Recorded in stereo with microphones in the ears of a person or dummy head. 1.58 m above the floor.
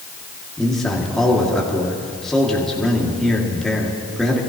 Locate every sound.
0.6 s a man speaking: 10° left (ahead or behind), 2.0 m